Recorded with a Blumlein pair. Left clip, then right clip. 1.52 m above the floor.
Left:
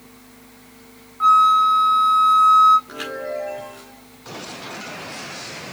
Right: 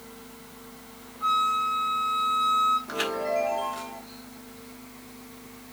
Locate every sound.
1.2 s a flute: 45° left, 2 m
2.9 s a chime: 10° right, 3.5 m